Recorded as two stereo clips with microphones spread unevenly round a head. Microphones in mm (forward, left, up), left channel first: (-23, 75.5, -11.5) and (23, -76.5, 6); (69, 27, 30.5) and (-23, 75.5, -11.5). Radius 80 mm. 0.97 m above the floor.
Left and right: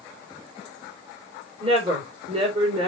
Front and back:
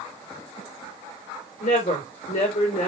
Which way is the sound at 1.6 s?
15° right.